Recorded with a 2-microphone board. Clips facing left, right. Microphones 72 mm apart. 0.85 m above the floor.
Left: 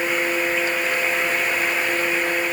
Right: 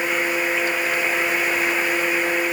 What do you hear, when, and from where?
Only background noise.